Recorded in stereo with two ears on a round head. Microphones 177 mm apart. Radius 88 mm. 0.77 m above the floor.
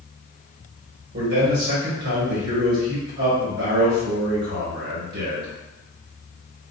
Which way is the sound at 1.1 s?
55° right (ahead or behind).